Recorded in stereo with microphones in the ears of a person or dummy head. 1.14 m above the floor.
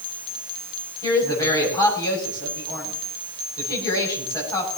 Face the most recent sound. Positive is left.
turn(degrees=20)  # may be behind; listen again after turning